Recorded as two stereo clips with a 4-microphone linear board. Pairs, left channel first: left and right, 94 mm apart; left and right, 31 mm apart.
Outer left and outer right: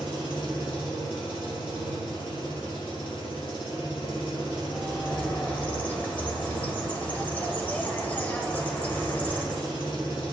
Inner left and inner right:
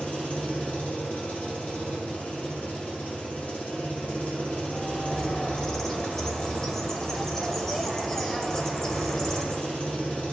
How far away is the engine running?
About 2.5 m.